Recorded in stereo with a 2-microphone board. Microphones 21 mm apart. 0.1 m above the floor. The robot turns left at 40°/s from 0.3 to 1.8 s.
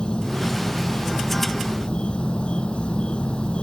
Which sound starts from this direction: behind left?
An insect, at 0.0 s.